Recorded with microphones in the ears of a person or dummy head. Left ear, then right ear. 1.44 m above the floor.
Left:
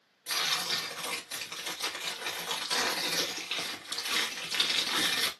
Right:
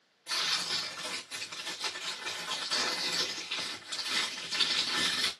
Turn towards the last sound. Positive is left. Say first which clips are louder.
# left 1 dB
turn(degrees=25)  # may be behind; listen again after turning